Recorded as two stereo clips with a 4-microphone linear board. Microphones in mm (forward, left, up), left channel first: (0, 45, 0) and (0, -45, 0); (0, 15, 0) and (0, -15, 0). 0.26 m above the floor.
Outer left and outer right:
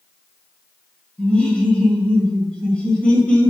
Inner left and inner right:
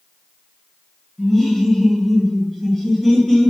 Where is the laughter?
15° left (ahead or behind), 0.9 m.